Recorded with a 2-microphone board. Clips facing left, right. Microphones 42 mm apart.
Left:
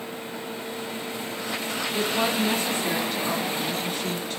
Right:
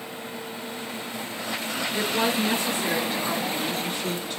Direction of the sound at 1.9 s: 10° right (ahead or behind).